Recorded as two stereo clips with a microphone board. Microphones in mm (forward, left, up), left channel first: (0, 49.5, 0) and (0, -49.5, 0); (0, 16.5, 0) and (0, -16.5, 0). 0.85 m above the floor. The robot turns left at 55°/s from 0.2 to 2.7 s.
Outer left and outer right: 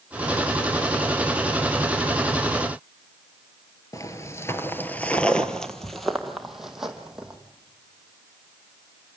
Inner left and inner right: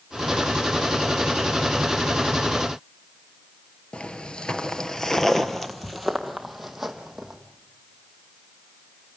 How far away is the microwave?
No microwave in this recording.